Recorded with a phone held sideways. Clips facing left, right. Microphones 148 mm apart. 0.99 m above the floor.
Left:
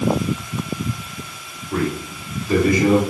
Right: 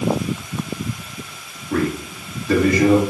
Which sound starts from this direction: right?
A man speaking, at 1.7 s.